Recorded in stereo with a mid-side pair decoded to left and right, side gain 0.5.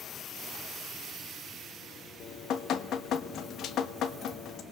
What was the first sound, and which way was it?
Dripping, 65° left.